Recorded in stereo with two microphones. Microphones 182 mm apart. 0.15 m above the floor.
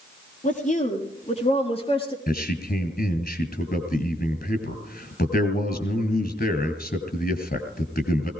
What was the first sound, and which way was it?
A woman speaking, 45° left (ahead or behind).